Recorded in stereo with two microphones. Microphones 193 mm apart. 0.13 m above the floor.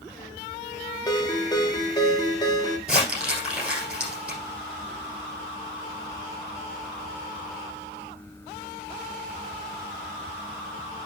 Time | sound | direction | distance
1.1 | a ringtone | 20° left (ahead or behind) | 1.2 m
2.9 | crumpling | 10° right (ahead or behind) | 7 m